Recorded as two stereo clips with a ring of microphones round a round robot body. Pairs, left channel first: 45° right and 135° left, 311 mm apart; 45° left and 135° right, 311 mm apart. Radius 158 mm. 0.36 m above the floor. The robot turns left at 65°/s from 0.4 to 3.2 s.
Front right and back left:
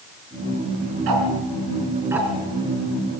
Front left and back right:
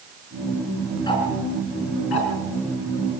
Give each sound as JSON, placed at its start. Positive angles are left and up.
{"t": 1.1, "sound": "ticking", "azimuth_deg": 120, "distance_m": 4.5}